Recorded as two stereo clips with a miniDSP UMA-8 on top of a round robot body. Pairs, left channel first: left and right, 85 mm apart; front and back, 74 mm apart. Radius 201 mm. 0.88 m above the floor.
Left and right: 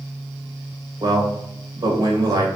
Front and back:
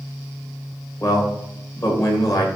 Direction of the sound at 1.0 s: 40° right.